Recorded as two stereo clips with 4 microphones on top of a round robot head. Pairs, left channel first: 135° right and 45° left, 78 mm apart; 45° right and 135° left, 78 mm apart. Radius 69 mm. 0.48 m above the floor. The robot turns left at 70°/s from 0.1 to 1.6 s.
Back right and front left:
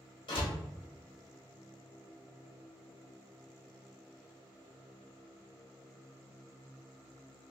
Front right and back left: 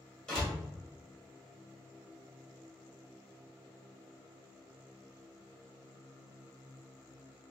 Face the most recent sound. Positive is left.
turn(degrees=135)